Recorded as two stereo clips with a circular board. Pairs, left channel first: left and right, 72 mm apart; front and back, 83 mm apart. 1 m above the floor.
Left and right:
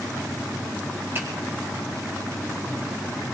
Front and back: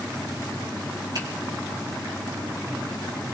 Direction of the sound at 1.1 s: 145° right.